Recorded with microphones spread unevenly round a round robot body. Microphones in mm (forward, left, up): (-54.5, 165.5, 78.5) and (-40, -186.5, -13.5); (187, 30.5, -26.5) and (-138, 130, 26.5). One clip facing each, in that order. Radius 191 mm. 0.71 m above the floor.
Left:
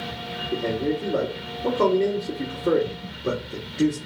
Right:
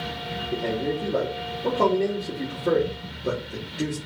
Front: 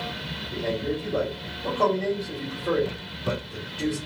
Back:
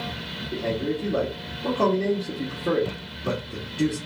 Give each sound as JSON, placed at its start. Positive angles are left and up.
{"t": 0.5, "sound": "a man speaking", "azimuth_deg": -175, "distance_m": 1.2}